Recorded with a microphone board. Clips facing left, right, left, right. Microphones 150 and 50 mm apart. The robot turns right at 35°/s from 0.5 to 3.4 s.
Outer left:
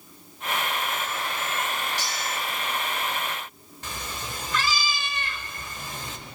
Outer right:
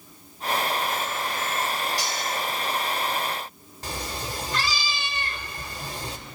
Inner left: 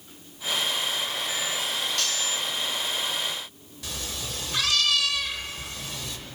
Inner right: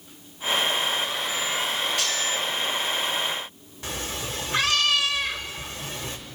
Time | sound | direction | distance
2.0 | cutlery clinking | 15° right (ahead or behind) | 3 m
3.8 | a cat meowing | 35° right (ahead or behind) | 0.7 m